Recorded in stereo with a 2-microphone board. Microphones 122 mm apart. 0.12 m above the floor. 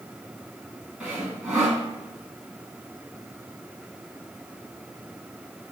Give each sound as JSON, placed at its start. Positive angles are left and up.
{"t": 1.0, "sound": "sawing", "side_deg": -5, "distance_m": 3.5}